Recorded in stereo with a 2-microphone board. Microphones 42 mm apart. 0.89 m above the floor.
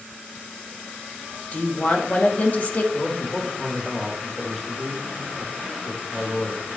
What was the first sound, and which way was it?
A woman speaking, 35° left (ahead or behind).